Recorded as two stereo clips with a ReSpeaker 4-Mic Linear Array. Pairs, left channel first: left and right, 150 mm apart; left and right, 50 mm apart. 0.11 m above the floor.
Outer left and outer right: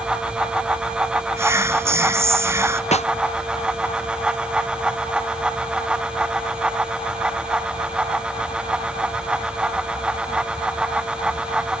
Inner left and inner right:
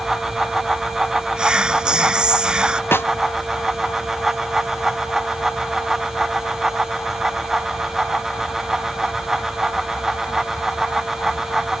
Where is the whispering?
20° right (ahead or behind).